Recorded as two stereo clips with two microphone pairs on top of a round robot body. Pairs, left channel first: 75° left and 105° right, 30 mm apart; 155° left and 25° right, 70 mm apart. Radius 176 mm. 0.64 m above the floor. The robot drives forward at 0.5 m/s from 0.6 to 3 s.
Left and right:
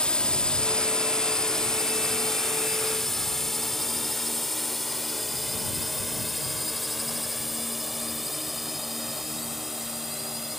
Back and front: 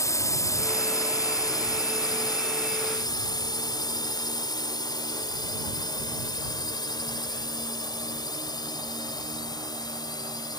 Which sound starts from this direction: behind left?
A drone, at 0.0 s.